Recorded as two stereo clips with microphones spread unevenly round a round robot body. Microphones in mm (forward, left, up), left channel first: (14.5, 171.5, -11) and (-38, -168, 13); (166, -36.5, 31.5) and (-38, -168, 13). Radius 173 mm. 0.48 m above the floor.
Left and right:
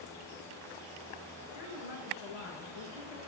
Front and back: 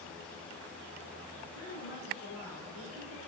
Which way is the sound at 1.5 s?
95° left.